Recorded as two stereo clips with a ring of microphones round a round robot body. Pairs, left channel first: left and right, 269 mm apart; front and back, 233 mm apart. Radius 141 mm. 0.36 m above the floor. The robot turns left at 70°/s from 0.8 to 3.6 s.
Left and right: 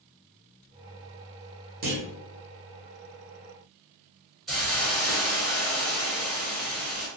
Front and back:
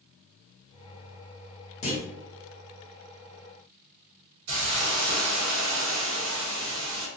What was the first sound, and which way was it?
A clunk, 50° right.